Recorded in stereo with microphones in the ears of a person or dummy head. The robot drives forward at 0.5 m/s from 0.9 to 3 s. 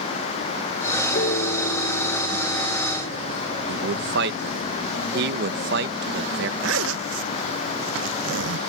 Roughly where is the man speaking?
Right.